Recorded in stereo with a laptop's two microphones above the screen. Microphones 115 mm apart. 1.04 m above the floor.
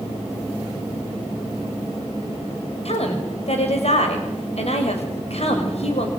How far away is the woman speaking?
About 6 m.